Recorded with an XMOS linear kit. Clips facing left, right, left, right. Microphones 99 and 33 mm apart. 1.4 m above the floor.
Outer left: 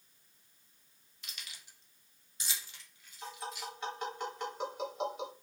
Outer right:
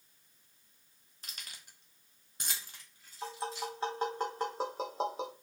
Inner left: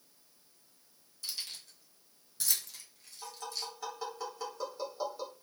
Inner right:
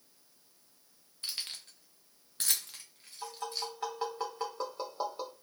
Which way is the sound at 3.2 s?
35° right (ahead or behind).